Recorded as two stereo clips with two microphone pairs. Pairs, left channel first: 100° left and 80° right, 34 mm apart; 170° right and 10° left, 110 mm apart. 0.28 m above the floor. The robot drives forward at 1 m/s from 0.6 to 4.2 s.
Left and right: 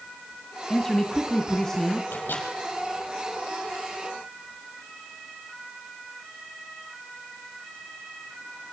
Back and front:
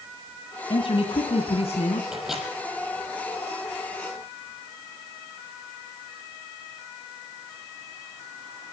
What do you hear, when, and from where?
0.7 s a man speaking: 175° left, 1.8 m; by 2.0 s straight behind, 3 m
2.1 s a microwave: 95° left, 6 m; by 2.5 s 100° left, 6 m